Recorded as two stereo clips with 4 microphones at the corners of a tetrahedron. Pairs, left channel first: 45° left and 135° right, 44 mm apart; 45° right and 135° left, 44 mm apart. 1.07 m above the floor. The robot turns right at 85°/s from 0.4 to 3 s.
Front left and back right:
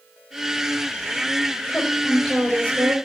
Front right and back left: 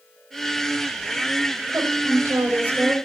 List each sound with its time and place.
1.7 s a woman speaking: 100° left, 4 m; by 2.9 s 155° right, 4 m